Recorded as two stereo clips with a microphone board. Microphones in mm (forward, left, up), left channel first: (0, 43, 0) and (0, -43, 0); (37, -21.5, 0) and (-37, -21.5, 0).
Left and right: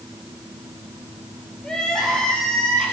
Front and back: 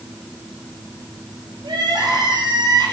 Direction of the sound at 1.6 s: 170° left.